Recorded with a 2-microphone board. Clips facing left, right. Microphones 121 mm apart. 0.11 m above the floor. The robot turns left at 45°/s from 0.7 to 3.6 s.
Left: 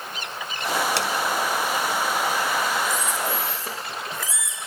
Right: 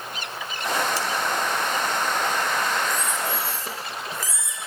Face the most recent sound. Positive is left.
turn(degrees=130)